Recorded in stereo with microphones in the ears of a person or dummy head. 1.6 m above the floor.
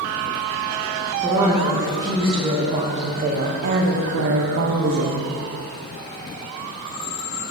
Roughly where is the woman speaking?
Centre.